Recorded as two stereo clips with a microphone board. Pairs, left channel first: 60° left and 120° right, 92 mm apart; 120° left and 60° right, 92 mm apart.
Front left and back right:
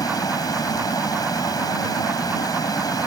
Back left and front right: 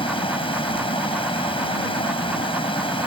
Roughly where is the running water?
Left.